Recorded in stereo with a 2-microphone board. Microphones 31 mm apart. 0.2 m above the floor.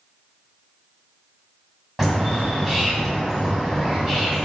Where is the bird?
15° right (ahead or behind), 1.2 m.